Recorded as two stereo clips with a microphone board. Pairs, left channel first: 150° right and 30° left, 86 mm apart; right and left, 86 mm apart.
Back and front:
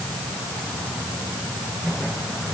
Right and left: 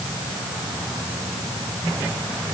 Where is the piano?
I don't hear a piano.